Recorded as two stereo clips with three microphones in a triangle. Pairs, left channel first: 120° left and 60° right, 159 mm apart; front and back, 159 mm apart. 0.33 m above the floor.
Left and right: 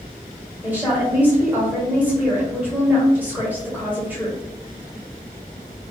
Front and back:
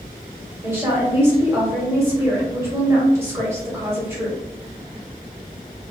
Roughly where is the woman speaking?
Behind right.